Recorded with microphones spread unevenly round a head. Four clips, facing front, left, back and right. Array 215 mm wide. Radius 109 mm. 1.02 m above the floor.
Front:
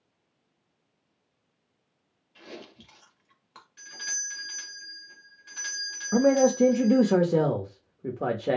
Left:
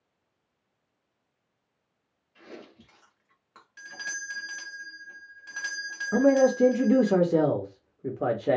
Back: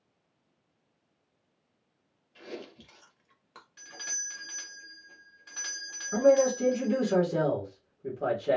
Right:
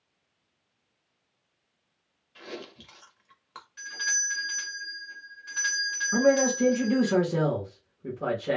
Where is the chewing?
140° right, 0.9 m.